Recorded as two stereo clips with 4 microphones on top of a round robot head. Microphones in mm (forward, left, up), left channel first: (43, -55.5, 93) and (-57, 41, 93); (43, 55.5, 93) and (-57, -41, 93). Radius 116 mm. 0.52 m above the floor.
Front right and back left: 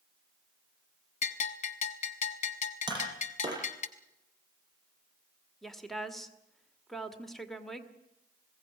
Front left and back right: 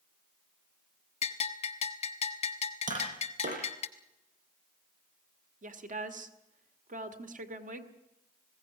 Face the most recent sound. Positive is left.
turn(degrees=-130)